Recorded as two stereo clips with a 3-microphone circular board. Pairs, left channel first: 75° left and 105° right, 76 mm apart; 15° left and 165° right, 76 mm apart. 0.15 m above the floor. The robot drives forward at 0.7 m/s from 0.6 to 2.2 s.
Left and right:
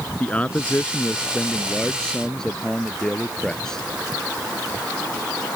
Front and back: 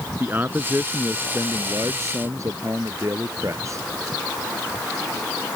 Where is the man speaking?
140° left; by 3.8 s 155° left.